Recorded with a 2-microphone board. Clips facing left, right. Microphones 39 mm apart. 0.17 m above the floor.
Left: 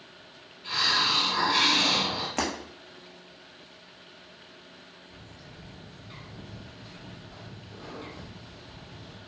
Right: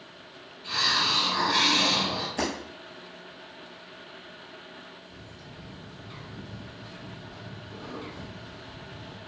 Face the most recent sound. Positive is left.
turn(degrees=-5)  # may be behind; listen again after turning